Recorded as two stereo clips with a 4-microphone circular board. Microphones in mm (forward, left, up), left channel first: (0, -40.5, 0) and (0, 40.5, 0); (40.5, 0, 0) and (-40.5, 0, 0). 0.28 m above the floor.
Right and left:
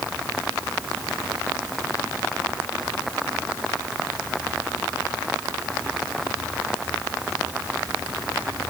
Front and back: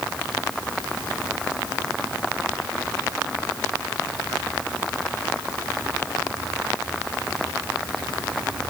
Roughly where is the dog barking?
I don't hear a dog barking.